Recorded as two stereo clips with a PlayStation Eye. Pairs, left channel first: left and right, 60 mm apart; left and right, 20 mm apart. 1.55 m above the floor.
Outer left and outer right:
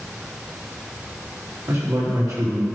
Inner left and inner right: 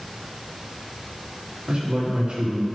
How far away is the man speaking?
About 3.5 m.